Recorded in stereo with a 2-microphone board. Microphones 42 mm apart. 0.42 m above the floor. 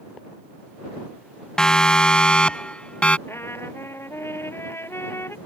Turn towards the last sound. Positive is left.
turn(degrees=80)